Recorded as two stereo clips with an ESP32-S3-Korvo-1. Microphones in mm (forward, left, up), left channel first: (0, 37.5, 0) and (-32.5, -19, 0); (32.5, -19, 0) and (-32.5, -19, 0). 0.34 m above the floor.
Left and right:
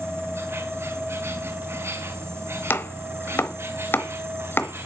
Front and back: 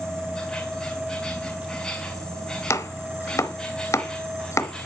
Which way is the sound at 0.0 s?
80° right.